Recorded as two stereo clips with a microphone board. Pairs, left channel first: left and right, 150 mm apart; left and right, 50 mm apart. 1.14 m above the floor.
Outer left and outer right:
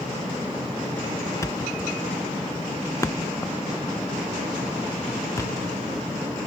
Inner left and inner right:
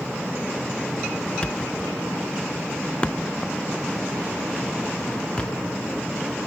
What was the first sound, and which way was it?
A thud, 20° left (ahead or behind).